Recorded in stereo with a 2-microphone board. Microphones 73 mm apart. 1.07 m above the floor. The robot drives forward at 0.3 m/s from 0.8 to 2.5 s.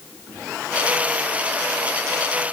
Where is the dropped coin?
No dropped coin in this recording.